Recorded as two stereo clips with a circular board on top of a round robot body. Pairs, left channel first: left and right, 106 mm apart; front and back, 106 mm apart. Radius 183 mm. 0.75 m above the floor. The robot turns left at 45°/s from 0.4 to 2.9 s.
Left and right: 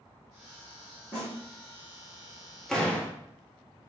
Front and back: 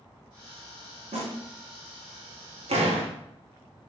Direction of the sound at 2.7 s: 175° left.